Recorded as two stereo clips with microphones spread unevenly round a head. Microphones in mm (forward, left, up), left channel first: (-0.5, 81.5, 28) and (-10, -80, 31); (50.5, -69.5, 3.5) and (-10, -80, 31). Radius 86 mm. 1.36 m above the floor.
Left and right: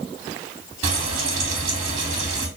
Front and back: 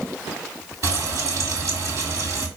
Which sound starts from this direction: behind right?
Frying, at 0.8 s.